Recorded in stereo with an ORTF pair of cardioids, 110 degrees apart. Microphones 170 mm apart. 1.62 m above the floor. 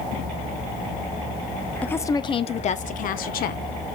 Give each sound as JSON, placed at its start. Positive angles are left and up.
{"t": 1.8, "sound": "a woman speaking", "azimuth_deg": 10, "distance_m": 0.7}